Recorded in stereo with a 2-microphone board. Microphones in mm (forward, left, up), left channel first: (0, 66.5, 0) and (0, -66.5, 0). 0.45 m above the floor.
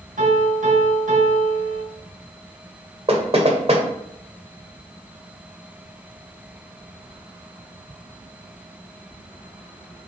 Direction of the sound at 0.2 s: 70° right (ahead or behind).